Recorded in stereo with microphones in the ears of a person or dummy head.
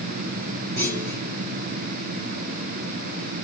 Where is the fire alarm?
I don't hear a fire alarm.